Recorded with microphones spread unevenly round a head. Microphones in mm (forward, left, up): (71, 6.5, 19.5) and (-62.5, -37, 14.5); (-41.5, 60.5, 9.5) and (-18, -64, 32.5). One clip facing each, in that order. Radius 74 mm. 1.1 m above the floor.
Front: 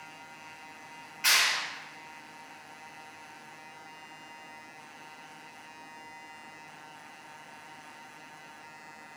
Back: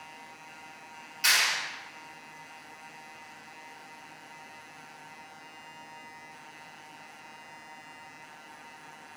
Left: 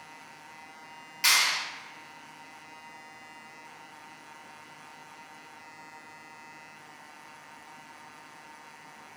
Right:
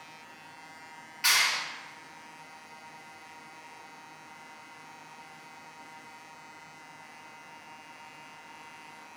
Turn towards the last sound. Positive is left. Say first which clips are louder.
# even, left 1 dB
turn(degrees=145)